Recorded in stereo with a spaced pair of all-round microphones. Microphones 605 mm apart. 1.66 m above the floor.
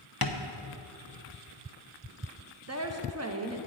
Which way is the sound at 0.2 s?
40° left (ahead or behind).